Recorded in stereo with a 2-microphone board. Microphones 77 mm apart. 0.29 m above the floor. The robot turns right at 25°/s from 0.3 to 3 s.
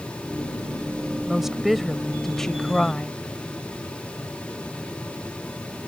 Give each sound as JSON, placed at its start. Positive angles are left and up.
{"t": 1.3, "sound": "a woman speaking", "side_deg": -5}